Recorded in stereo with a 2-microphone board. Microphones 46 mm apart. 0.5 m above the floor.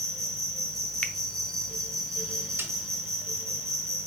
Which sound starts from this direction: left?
A finger snap, at 1.0 s.